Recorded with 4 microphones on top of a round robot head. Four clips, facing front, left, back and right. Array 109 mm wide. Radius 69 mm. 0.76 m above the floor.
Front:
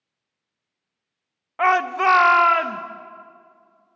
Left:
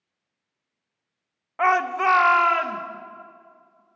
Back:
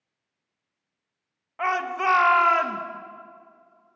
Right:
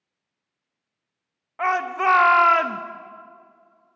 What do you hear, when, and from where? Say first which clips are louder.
1.6 s a shout: left 2 dB, front 7 dB; 25° left, 0.8 m; by 2.8 s 75° right, 0.9 m